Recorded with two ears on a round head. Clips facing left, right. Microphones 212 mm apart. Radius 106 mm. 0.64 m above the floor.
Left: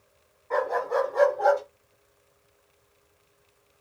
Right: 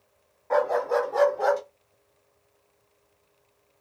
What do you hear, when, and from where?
0.5 s a dog barking: 85° right, 1.7 m; by 1.6 s 75° right (ahead or behind), 1.2 m